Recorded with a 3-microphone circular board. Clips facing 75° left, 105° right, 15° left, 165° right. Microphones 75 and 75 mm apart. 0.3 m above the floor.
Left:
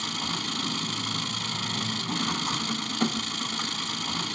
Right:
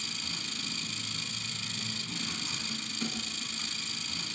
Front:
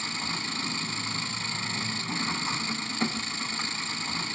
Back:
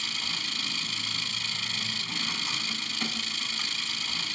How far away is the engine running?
About 1.0 m.